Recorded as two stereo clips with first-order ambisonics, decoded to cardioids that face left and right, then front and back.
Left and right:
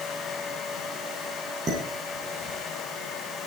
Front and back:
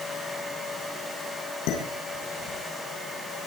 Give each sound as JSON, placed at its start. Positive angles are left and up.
{"t": 1.7, "sound": "dishes clattering", "azimuth_deg": -25, "distance_m": 8.0}